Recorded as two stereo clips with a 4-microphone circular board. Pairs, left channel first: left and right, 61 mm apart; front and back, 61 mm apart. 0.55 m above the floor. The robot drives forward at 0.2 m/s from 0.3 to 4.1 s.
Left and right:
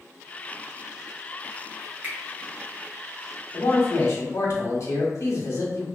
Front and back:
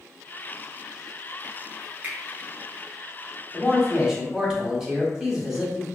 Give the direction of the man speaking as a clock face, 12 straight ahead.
9 o'clock.